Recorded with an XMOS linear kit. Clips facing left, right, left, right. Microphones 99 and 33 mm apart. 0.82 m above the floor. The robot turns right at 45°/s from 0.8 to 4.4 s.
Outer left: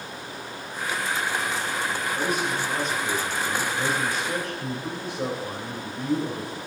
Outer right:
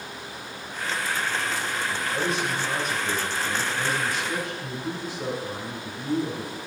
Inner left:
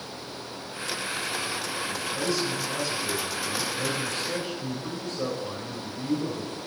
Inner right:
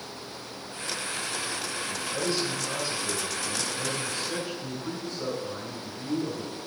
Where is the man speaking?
55° right, 4 m; by 6.6 s 55° left, 4 m.